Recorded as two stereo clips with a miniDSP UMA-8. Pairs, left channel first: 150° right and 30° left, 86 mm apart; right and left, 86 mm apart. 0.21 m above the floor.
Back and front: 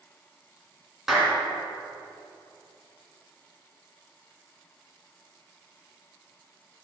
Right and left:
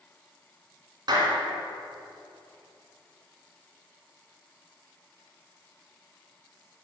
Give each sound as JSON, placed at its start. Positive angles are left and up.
{"t": 1.1, "sound": "a clap", "azimuth_deg": 115, "distance_m": 2.5}